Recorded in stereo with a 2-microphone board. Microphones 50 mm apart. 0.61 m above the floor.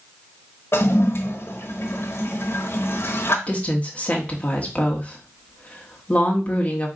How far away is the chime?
No chime in this recording.